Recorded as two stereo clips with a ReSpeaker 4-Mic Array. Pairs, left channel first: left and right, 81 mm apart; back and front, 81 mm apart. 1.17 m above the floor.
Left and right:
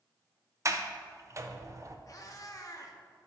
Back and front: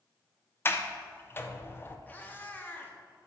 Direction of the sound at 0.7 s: 130° right.